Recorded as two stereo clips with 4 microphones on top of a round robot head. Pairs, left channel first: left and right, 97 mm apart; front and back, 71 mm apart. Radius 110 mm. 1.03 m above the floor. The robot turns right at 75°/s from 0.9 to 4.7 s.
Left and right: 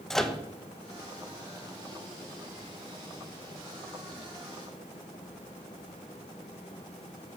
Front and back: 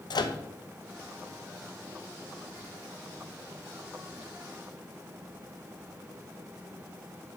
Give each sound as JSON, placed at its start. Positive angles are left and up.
{"t": 0.1, "sound": "a microwave", "azimuth_deg": 5, "distance_m": 0.9}